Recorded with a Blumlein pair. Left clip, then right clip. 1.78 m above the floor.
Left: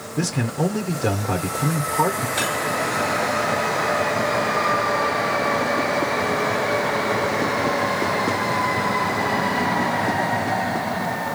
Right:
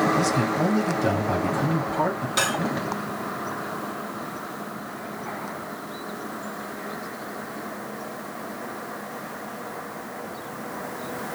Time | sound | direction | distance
0.2 | a man speaking | 10° left | 1.5 m
2.4 | cutlery clinking | 45° right | 3.5 m